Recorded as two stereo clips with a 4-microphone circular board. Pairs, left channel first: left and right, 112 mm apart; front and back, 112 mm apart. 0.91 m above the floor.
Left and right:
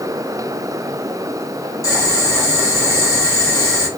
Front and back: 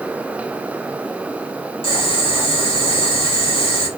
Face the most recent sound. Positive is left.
turn(degrees=30)